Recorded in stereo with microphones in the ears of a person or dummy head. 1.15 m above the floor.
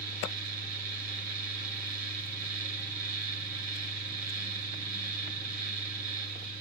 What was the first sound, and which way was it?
A fan, 45° right (ahead or behind).